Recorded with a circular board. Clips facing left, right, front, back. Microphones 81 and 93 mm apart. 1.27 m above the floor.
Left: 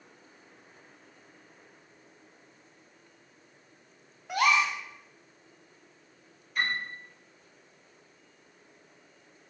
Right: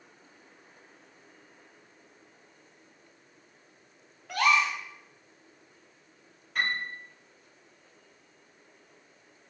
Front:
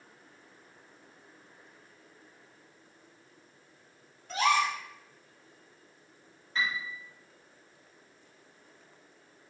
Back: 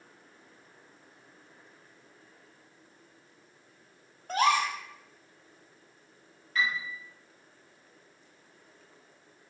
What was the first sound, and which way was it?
A gasp, 160° left.